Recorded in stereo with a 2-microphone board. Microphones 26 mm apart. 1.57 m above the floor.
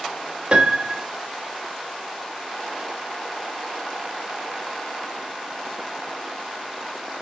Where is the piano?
40° right (ahead or behind), 1.6 m.